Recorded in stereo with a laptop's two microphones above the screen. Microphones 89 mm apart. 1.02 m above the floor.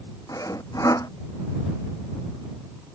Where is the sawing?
40° left (ahead or behind).